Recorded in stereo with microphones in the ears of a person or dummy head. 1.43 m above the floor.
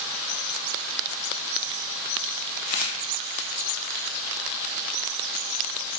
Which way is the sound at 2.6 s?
35° left (ahead or behind).